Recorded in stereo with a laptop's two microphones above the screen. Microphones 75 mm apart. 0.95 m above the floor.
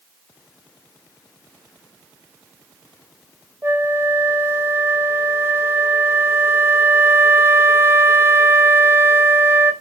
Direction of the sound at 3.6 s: 30° right (ahead or behind).